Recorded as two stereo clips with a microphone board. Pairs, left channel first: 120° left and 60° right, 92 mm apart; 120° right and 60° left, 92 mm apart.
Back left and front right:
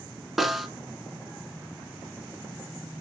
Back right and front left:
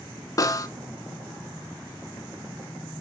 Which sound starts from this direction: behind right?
A snare drum, at 0.4 s.